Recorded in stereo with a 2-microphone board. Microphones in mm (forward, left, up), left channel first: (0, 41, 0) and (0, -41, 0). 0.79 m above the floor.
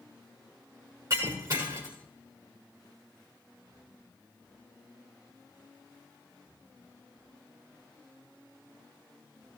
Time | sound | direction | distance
1.1 | breaking glass | 40° right (ahead or behind) | 6 m